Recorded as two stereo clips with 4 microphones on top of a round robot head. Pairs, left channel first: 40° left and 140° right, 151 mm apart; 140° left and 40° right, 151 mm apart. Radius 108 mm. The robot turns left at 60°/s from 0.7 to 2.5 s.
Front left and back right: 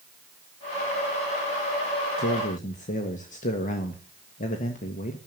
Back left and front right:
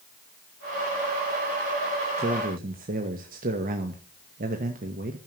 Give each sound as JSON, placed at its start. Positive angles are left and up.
{"t": 2.2, "sound": "a man speaking", "azimuth_deg": 15, "distance_m": 1.2}